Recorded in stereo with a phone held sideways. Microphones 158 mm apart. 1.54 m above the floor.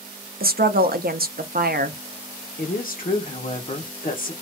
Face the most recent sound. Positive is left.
turn(degrees=65)  # may be behind; listen again after turning